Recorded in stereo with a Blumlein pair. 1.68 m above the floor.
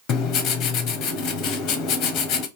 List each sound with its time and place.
0.1 s writing: 35° left, 0.7 m